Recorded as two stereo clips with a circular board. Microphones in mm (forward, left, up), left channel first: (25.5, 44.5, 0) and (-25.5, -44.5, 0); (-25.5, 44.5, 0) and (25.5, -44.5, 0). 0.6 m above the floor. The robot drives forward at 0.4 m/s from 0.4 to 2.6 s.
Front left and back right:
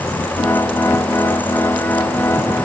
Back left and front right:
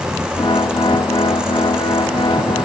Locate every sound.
Only background noise.